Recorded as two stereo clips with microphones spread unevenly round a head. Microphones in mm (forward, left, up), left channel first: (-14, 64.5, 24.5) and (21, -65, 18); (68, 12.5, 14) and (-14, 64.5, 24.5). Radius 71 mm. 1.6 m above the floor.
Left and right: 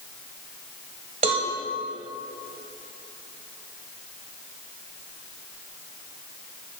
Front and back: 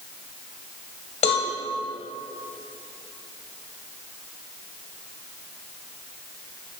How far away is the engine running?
No engine running in this recording.